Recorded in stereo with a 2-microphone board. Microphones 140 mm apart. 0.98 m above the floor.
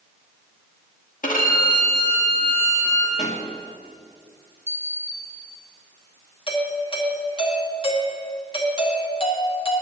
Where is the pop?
60° left (ahead or behind), 1.4 m.